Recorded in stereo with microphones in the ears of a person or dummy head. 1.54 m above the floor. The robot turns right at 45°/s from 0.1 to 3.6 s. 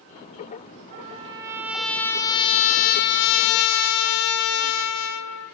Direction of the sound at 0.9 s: 40° right.